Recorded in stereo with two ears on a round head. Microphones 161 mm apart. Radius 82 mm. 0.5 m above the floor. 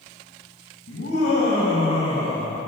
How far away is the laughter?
About 2.5 m.